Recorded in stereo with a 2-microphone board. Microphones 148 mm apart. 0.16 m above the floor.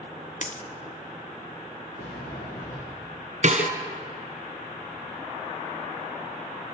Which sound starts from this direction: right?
A snare drum, at 3.4 s.